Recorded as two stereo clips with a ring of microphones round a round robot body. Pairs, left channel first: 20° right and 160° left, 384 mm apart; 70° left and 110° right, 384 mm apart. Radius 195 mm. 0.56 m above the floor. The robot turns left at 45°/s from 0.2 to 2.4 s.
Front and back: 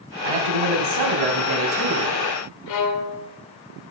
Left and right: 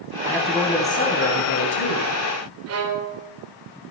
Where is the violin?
60° right, 1.9 m.